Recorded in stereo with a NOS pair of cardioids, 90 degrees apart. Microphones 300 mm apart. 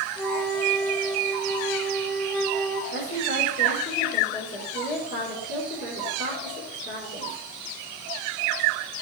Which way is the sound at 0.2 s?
Straight ahead.